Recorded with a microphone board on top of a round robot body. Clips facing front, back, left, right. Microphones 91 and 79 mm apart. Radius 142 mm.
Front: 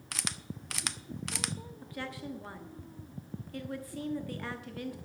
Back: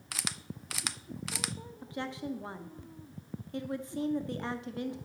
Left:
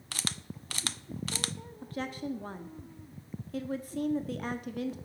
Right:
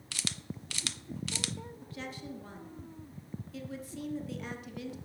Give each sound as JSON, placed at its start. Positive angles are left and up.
{"t": 0.1, "sound": "a camera shutter", "azimuth_deg": 95, "distance_m": 0.6}
{"t": 1.8, "sound": "a woman speaking", "azimuth_deg": 120, "distance_m": 1.2}